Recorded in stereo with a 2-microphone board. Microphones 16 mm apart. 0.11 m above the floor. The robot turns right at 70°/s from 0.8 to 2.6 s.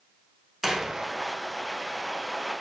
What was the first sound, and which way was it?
A door slam, 35° right (ahead or behind).